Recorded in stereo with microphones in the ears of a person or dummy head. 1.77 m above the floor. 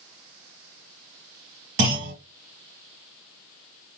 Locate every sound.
1.8 s a clunk: 55° right (ahead or behind), 2.5 m